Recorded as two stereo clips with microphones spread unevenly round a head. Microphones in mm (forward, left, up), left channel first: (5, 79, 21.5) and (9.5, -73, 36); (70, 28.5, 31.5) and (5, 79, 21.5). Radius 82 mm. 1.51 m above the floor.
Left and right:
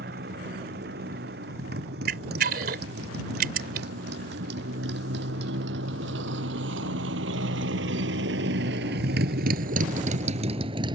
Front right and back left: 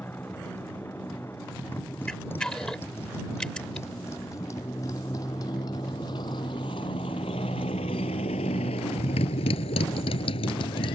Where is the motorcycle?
120° right; by 11.0 s 25° right.